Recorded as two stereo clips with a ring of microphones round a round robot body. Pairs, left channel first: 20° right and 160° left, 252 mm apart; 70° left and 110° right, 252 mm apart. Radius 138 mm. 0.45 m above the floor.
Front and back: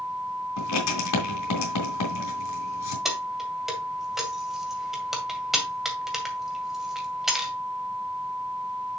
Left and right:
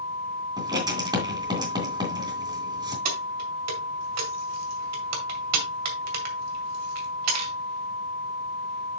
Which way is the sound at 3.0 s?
115° right.